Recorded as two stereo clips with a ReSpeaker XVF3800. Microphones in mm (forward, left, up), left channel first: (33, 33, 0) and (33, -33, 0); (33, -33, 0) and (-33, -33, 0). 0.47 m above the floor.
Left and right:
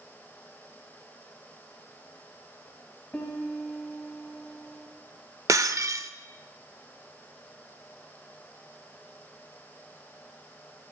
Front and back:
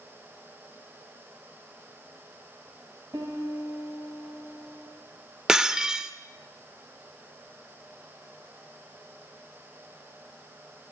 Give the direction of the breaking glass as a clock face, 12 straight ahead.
3 o'clock.